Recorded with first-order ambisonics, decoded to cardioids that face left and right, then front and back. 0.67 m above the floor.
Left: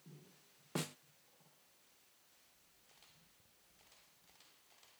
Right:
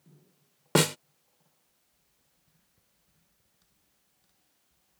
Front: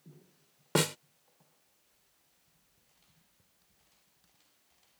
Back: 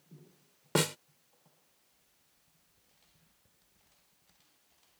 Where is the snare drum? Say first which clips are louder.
Right 19 dB, front 1 dB; 85° right.